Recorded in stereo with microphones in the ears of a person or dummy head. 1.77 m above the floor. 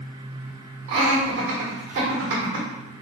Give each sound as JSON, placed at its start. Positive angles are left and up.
{"t": 0.9, "sound": "laughter", "side_deg": -65, "distance_m": 1.7}